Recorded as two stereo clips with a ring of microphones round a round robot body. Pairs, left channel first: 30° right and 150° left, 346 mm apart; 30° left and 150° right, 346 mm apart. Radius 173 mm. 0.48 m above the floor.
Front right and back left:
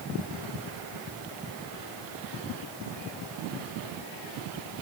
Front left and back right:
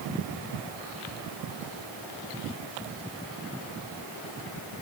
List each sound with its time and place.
Only background noise.